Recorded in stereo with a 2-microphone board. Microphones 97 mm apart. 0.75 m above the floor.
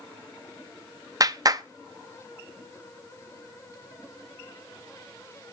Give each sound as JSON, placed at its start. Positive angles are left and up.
{"t": 1.2, "sound": "a clap", "side_deg": -40, "distance_m": 0.5}